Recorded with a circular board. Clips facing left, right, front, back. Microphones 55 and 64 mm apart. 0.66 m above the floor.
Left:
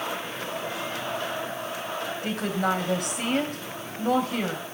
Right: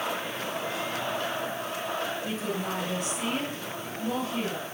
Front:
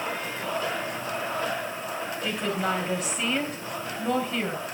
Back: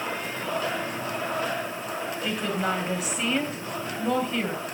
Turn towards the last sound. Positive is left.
turn(degrees=90)